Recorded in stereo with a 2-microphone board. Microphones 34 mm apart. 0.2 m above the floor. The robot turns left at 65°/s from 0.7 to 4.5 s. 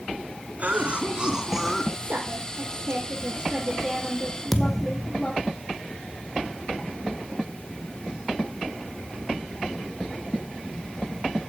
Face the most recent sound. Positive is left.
turn(degrees=5)  # may be behind; listen again after turning